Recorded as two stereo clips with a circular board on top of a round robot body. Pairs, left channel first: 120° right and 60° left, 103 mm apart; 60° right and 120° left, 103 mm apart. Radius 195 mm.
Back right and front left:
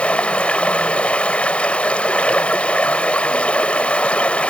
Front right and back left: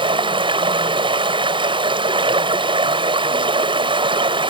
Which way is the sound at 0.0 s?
160° left.